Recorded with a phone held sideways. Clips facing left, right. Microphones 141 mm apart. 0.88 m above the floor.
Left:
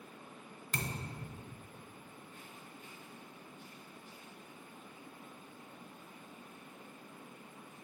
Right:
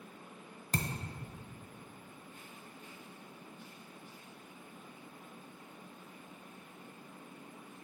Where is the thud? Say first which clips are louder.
Right 4 dB; 40° right (ahead or behind), 0.7 m.